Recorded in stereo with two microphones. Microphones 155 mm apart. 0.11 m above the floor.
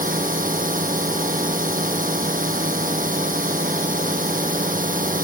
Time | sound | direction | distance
0.0 | a drone | 60° right (ahead or behind) | ?